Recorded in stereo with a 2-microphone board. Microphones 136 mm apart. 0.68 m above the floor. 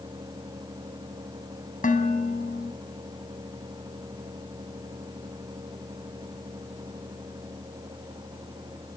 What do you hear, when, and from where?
1.8 s dishes clattering: 80° left, 3.5 m